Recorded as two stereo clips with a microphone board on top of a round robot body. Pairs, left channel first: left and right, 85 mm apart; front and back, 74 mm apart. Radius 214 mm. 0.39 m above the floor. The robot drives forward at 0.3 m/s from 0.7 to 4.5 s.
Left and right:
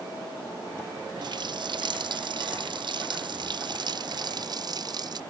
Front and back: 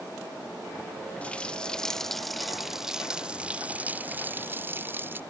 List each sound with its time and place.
1.2 s a running tap: 70° right; by 5.2 s 120° right